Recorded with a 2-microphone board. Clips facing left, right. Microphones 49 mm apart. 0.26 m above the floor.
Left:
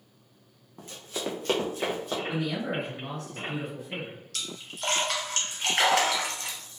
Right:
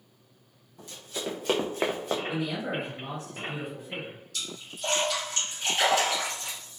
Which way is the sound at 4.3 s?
65° left (ahead or behind).